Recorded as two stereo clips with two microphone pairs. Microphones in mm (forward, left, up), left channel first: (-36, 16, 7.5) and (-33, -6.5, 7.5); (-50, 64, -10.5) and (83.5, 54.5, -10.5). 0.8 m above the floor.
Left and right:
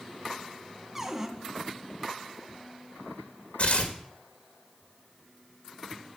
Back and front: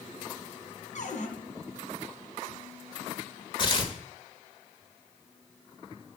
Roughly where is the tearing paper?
Behind left.